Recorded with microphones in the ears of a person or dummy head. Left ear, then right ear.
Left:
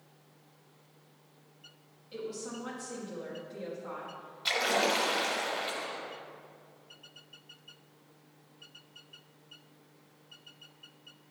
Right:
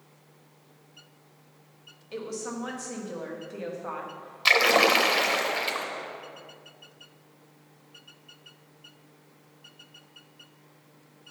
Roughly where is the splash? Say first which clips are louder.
Right 9 dB; right.